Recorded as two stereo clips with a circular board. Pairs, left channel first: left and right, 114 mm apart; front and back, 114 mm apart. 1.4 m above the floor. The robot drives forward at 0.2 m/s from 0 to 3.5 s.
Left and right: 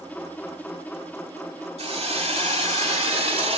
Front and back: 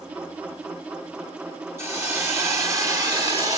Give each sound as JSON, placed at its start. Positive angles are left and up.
{"t": 1.8, "sound": "a hiss", "azimuth_deg": -115, "distance_m": 2.5}